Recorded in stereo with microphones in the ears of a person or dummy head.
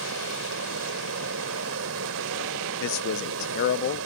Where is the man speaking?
55° left (ahead or behind).